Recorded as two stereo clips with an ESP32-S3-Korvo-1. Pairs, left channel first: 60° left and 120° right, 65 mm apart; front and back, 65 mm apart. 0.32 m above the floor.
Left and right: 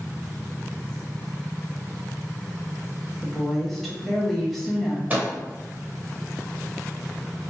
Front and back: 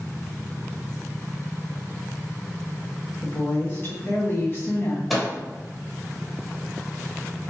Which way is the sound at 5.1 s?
90° right.